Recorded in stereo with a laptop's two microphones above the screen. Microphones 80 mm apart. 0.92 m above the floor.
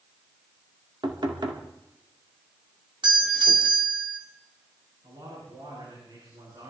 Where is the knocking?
70° right (ahead or behind), 2.0 m.